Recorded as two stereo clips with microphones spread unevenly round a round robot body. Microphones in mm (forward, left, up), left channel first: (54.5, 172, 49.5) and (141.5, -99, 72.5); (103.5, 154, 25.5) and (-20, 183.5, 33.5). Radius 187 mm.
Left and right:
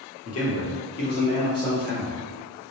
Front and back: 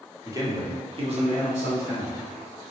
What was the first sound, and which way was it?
A man speaking, 100° left.